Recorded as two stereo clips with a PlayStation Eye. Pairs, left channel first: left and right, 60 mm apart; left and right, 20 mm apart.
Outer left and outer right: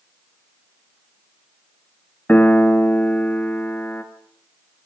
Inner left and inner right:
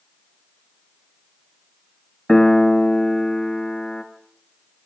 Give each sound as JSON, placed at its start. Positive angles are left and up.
{"t": 2.3, "sound": "a piano", "side_deg": 25, "distance_m": 1.9}